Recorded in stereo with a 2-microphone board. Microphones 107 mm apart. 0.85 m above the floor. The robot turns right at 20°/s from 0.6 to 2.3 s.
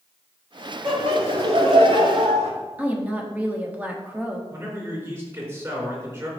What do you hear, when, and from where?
0.8 s laughter: 65° right (ahead or behind), 2.0 m; by 2.5 s 60° right (ahead or behind), 2.0 m
2.8 s a woman speaking: 15° right (ahead or behind), 1.2 m
4.5 s a man speaking: 30° right (ahead or behind), 3.5 m